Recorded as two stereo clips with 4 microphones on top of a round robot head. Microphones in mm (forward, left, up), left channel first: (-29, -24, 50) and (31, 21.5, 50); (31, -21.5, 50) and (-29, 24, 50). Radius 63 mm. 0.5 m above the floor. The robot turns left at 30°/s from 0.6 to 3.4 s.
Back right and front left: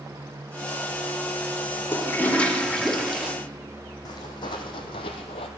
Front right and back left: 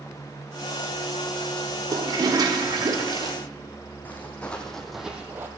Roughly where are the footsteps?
Right.